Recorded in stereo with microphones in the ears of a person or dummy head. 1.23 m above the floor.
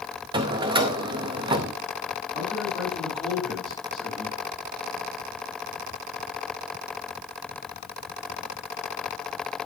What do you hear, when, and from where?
0.3 s a drawer: 25° right (ahead or behind), 0.6 m
2.3 s a man speaking: 10° left (ahead or behind), 7.5 m